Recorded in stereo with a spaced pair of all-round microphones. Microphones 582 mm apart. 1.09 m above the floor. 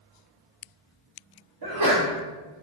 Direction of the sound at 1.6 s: 40° right (ahead or behind).